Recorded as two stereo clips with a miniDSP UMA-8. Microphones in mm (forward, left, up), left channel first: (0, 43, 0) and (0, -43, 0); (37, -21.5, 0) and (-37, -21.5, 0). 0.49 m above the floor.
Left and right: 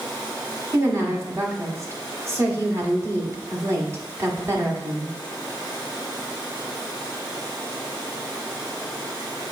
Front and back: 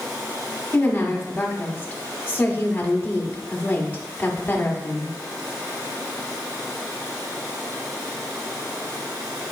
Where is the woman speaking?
55° right, 1.5 m.